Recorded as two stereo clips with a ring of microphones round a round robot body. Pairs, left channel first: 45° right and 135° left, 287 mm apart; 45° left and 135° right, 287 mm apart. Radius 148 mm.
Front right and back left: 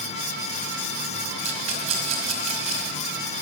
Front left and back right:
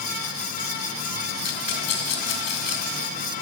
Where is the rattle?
65° left, 2.5 m.